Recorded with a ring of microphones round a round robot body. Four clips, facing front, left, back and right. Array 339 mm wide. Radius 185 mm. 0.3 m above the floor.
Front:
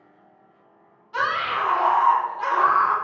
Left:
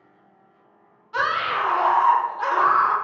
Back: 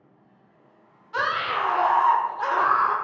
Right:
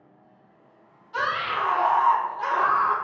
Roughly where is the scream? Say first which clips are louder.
Left 3 dB, front 1 dB; behind left.